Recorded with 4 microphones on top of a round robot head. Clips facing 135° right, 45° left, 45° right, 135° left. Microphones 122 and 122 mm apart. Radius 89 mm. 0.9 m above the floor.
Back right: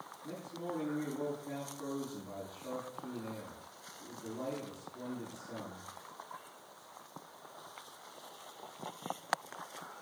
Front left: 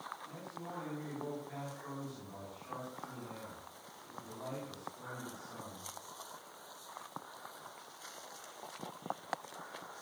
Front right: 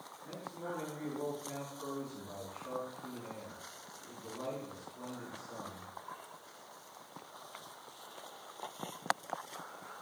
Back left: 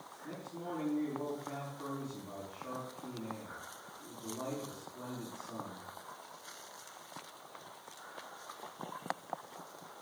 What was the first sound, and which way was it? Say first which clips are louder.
A man speaking: back right 5 dB, even; 150° right.